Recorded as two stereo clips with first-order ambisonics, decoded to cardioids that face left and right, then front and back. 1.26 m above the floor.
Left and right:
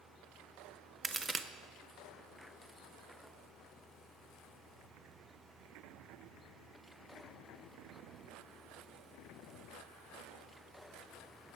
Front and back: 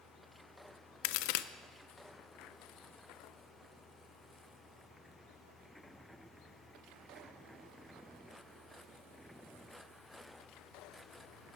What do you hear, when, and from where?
1.0 s a crack: 10° right, 0.5 m